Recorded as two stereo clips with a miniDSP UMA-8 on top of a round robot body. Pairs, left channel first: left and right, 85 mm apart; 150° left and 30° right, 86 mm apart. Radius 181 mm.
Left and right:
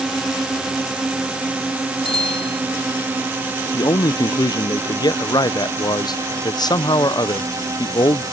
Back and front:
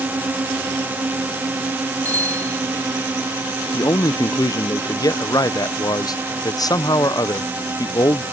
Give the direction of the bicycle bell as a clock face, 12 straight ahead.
9 o'clock.